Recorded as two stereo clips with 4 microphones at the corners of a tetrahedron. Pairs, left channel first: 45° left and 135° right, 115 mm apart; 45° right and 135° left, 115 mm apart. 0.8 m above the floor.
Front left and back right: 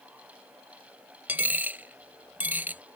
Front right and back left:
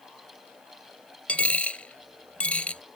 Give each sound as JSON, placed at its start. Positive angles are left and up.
{"t": 1.3, "sound": "a dropped coin", "azimuth_deg": -100}